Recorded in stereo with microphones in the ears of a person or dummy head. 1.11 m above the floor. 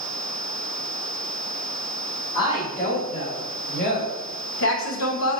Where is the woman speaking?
35° left (ahead or behind), 2 m; by 5.4 s 70° left (ahead or behind), 0.9 m.